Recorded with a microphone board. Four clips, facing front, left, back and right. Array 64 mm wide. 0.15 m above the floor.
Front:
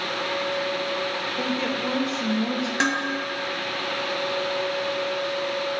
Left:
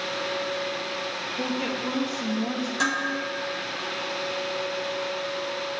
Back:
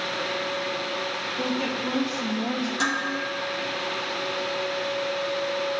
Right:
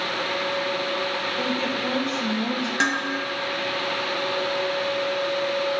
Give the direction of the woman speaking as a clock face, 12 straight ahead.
1 o'clock.